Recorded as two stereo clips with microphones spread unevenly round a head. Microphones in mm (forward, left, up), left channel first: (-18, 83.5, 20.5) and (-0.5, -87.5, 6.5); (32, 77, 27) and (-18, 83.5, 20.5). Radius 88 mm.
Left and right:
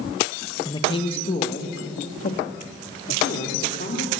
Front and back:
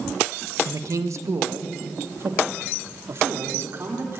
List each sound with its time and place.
0.7 s a man speaking: 165° left, 1.5 m; by 4.2 s 135° left, 4.5 m